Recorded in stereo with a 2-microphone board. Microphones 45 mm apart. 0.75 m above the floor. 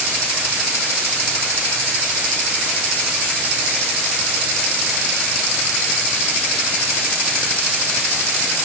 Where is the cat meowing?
No cat meowing in this recording.